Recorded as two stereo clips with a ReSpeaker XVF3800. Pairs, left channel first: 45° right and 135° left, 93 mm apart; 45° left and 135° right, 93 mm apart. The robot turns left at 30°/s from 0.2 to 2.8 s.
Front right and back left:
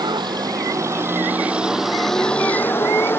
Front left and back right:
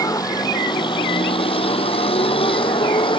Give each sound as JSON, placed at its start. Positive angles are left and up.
{"t": 0.0, "sound": "a vehicle", "azimuth_deg": 95}